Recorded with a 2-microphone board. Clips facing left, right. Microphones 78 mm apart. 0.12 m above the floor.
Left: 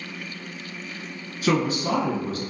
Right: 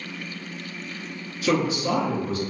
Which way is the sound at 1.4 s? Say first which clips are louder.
Even; 30° left (ahead or behind).